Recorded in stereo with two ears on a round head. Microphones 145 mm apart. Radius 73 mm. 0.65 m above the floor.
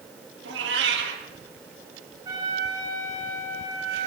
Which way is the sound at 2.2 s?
25° right (ahead or behind).